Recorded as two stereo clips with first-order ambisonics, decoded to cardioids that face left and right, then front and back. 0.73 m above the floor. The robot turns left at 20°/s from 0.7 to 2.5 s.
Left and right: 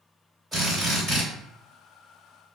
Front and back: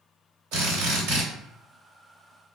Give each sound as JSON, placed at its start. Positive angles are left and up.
{"t": 0.5, "sound": "a drill", "azimuth_deg": -170, "distance_m": 1.5}